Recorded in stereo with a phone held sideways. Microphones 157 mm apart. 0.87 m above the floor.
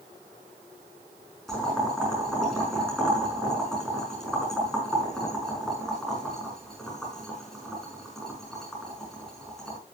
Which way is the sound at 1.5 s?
5° left (ahead or behind).